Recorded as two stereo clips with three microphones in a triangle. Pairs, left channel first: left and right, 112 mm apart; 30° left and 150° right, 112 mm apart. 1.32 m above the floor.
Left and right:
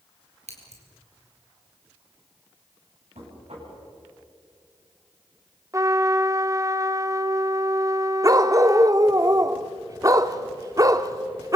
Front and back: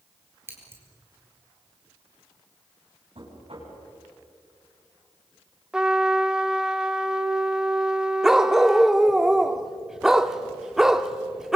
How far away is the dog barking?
About 1.0 m.